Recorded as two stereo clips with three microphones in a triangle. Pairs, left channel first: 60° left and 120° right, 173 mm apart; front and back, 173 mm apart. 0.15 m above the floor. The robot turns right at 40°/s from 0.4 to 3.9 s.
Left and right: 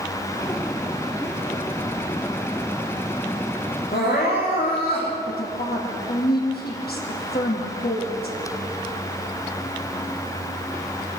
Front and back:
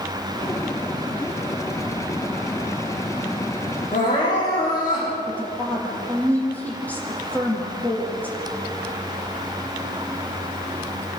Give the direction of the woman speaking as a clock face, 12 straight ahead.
9 o'clock.